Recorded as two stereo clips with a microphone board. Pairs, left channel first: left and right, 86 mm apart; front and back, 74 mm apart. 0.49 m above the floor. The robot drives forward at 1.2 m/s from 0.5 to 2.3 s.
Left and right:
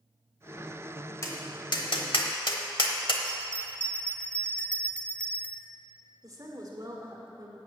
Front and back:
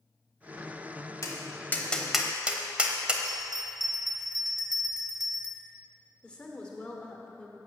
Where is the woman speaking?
70° right, 1.4 m.